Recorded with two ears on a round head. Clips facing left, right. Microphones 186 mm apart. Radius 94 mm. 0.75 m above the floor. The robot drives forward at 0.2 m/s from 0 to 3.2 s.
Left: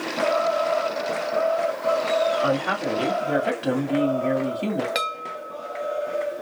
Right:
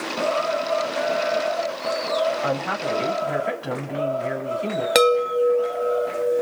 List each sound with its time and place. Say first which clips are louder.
2.4 s a woman speaking: left 2 dB; 40° left (ahead or behind), 2.5 m
5.0 s a chime: right 16 dB; 60° right (ahead or behind), 0.5 m